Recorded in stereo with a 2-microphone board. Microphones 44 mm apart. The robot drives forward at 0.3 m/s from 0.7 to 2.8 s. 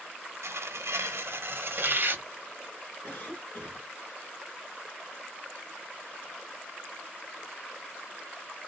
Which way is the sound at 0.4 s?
85° right.